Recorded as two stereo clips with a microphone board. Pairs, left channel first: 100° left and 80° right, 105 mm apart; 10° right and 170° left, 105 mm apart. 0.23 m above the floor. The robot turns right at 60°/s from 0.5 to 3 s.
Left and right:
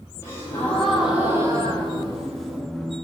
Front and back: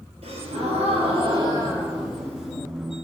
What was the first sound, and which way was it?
A gasp, 165° left.